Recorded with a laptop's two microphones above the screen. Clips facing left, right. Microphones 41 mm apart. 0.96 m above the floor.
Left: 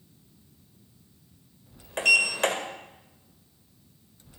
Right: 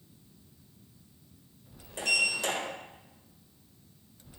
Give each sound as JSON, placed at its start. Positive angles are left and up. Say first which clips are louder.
{"t": 2.0, "sound": "a sliding door", "louder": "left 7 dB", "side_deg": 70, "distance_m": 2.0}